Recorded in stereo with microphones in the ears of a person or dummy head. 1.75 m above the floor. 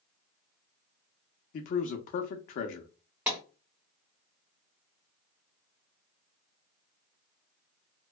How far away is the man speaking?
About 0.6 m.